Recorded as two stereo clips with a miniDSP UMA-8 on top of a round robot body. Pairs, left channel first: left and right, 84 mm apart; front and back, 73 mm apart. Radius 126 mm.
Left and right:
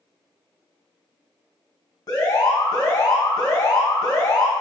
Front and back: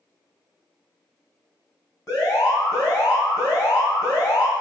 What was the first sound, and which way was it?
An alarm, 45° left.